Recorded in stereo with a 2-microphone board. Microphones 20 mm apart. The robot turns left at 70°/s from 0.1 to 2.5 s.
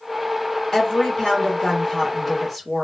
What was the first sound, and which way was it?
A woman speaking, 135° left.